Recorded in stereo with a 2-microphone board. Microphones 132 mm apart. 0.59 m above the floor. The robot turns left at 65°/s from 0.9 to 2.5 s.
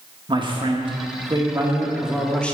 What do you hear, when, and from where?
0.3 s a man speaking: 95° right, 1.0 m; by 2.5 s 165° left, 1.0 m